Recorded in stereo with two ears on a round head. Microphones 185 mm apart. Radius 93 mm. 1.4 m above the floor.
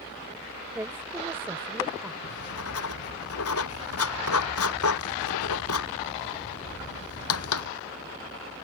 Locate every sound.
0.8 s a woman speaking: 10° right (ahead or behind)
2.2 s writing: 85° left